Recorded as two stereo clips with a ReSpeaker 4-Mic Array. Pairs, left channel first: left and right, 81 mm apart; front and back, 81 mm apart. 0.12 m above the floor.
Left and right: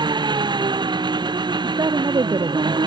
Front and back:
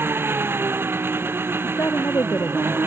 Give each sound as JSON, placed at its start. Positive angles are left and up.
{"t": 0.0, "sound": "an engine running", "azimuth_deg": -115}
{"t": 1.6, "sound": "a woman speaking", "azimuth_deg": -55}